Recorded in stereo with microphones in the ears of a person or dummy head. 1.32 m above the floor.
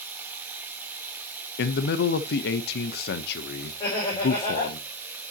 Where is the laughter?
30° left (ahead or behind), 3.5 m.